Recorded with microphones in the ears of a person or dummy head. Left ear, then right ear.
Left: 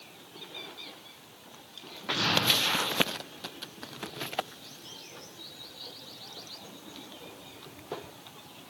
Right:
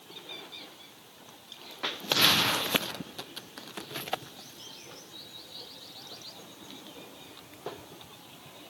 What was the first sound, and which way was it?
An explosion, 65° right (ahead or behind).